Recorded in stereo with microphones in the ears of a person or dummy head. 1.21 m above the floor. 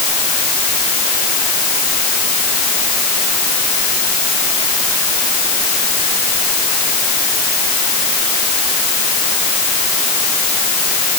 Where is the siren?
No siren in this recording.